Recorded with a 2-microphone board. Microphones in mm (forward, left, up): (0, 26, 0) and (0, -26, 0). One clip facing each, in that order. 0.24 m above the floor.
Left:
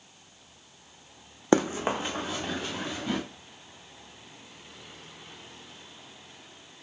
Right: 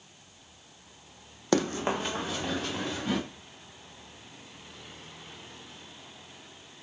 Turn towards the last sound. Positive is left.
turn(degrees=0)  # may be behind; listen again after turning